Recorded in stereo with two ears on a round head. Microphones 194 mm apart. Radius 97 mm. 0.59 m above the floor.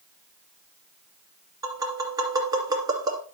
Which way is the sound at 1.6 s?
20° right (ahead or behind).